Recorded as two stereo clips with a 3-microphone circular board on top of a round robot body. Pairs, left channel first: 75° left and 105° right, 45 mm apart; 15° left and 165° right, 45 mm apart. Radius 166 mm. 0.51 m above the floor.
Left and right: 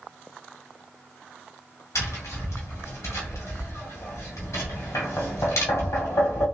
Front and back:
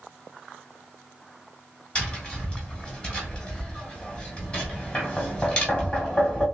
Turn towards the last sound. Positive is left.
turn(degrees=80)